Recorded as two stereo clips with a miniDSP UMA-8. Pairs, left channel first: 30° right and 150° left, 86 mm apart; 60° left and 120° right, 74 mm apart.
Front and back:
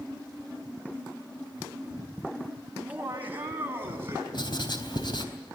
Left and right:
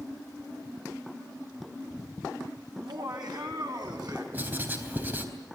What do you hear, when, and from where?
2.8 s laughter: 135° right, 4.5 m; by 4.2 s 150° right, 6.5 m
4.3 s writing: 55° right, 3.5 m